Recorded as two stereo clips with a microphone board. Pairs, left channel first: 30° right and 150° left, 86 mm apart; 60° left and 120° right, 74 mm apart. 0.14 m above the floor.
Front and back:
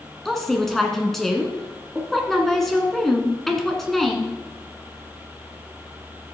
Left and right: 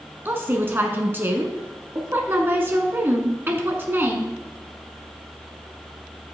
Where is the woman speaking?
110° right, 1.2 m.